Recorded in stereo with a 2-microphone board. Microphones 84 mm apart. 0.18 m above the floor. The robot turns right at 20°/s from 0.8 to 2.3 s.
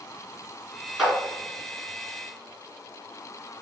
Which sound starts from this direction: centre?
A clap, at 1.0 s.